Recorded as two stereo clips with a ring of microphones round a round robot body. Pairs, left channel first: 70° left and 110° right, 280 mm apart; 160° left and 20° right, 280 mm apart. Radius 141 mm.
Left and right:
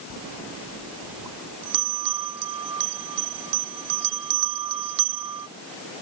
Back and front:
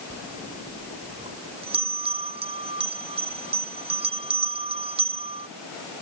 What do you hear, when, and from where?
0.1 s a bell: 95° right